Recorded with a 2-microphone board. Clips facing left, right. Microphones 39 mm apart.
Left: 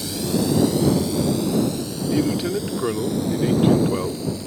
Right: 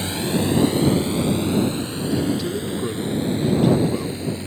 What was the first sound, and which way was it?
A drone, 35° right (ahead or behind).